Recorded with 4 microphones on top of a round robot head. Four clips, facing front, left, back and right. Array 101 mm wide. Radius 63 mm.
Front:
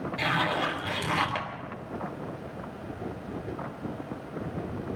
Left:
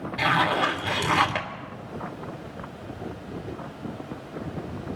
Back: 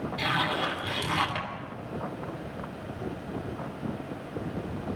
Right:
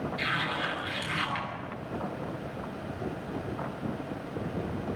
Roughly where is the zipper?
Left.